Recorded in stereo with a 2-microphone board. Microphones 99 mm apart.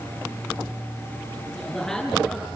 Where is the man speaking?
5° left (ahead or behind), 8.5 m.